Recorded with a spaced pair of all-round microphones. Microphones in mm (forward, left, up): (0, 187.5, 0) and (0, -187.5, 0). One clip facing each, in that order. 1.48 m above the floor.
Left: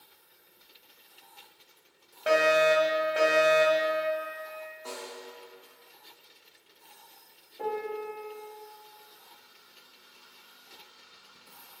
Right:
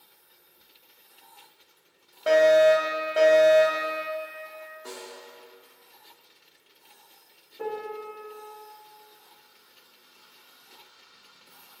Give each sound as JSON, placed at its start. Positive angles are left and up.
{"t": 2.3, "sound": "a fire alarm", "side_deg": 0, "distance_m": 1.3}
{"t": 4.8, "sound": "a snare drum", "side_deg": -25, "distance_m": 0.8}
{"t": 7.6, "sound": "a piano", "side_deg": -20, "distance_m": 1.0}